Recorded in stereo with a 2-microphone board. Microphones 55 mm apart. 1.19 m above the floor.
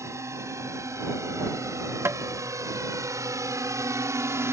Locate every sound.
0.0 s a drone: 65° right (ahead or behind); by 4.5 s 60° right (ahead or behind)
2.0 s tapping: 55° right (ahead or behind)